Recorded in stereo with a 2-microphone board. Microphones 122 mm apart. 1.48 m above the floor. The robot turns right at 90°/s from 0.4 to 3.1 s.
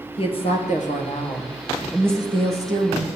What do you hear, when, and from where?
0.2 s a woman speaking: 50° left, 1.5 m; by 3.1 s 70° right, 1.5 m